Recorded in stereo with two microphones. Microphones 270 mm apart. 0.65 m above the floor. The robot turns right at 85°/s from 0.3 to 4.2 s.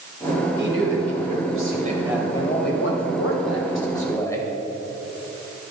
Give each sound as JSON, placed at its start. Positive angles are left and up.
{"t": 0.6, "sound": "a man speaking", "azimuth_deg": -140, "distance_m": 2.5}